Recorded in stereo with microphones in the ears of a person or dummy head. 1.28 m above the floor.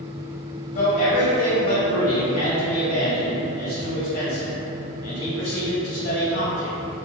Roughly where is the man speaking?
Left.